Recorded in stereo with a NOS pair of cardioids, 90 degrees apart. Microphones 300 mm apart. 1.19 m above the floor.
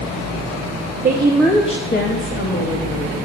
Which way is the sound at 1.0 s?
30° right.